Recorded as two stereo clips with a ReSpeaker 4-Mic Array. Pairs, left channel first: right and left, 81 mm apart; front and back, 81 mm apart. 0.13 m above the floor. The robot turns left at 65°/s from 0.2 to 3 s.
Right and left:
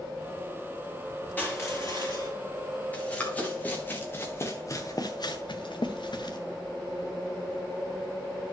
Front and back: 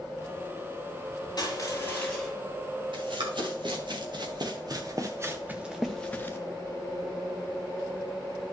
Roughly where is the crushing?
Ahead right.